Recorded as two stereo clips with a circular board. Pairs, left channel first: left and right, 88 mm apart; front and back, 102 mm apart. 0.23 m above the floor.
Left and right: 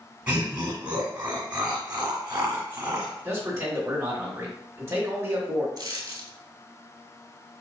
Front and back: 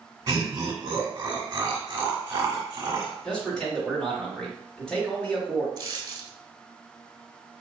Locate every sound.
0.3 s laughter: 140° right, 1.3 m
3.2 s a man speaking: 70° right, 1.6 m
5.8 s a dropped coin: 130° right, 1.1 m